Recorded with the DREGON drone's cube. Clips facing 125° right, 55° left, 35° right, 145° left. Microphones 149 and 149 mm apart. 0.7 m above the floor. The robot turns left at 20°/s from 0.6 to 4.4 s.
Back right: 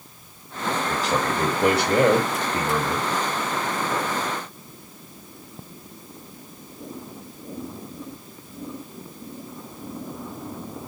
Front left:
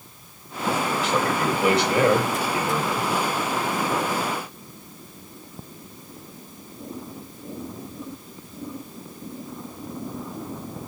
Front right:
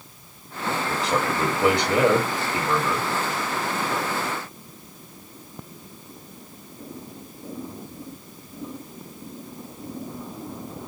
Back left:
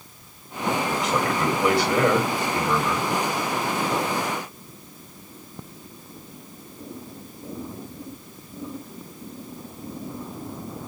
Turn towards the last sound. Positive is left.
turn(degrees=-145)